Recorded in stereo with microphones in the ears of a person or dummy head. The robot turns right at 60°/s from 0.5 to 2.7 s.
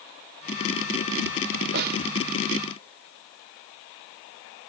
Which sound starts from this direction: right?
A snare drum, at 1.7 s.